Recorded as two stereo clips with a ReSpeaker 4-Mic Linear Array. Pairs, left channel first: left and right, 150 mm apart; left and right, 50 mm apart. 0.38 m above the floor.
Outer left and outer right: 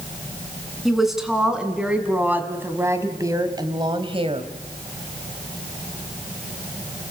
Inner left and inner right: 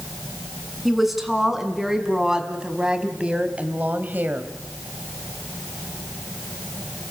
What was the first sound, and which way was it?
A woman speaking, centre (ahead or behind).